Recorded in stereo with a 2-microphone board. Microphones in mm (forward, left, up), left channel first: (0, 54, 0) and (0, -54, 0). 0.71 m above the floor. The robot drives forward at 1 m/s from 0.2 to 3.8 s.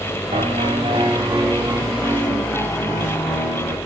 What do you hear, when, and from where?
0.3 s a piano: 70° right (ahead or behind), 0.9 m; by 3.8 s 15° right (ahead or behind), 3.5 m